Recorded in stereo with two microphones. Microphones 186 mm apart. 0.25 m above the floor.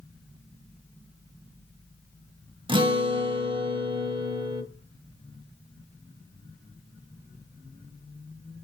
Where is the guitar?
25° right (ahead or behind), 0.7 m.